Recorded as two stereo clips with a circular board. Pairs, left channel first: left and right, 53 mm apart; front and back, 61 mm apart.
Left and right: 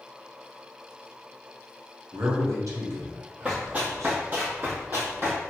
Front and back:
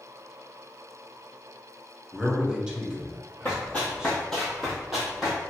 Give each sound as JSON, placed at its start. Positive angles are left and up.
{"t": 2.1, "sound": "a man speaking", "azimuth_deg": -100, "distance_m": 1.0}
{"t": 3.5, "sound": "running footsteps", "azimuth_deg": -35, "distance_m": 1.8}